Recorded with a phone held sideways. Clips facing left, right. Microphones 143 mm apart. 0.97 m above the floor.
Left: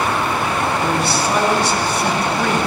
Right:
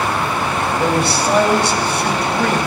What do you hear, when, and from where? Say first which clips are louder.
0.8 s a man speaking: right 2 dB; 70° right (ahead or behind), 4 m